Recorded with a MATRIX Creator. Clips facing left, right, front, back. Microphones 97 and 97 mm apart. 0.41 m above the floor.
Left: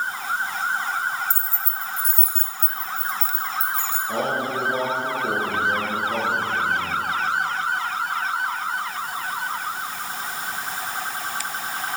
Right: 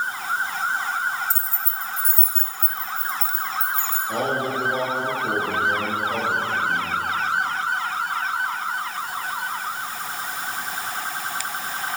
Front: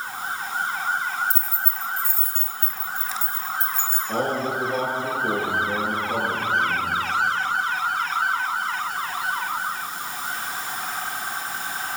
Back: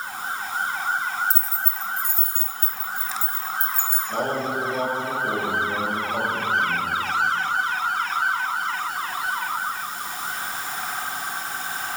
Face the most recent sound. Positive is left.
turn(degrees=30)